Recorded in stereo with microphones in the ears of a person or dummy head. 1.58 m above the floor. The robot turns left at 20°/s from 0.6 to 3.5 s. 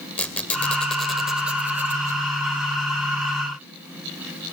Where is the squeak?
10° left (ahead or behind), 1.8 m; by 2.2 s 15° right (ahead or behind), 1.8 m.